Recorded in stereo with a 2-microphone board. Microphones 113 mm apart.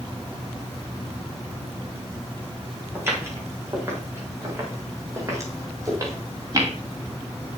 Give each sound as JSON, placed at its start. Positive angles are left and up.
{"t": 3.0, "sound": "footsteps", "side_deg": -20, "distance_m": 9.5}